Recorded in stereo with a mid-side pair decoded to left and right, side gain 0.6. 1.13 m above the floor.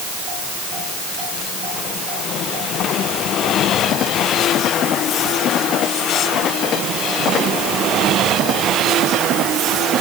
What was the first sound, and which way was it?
Only background noise.